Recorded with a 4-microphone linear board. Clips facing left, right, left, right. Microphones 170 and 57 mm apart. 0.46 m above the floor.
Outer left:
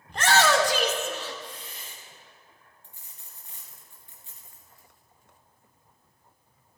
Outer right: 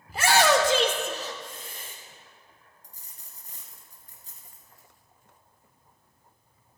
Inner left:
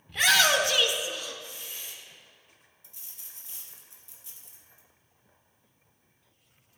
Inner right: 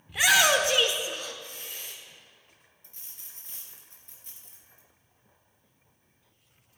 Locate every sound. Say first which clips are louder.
0.1 s a shout: outer right 1 dB, inner right 1 dB; 5° right (ahead or behind), 1.1 m; by 1.9 s 50° right (ahead or behind), 1.5 m
2.8 s a dropped coin: even, even; 40° right (ahead or behind), 2 m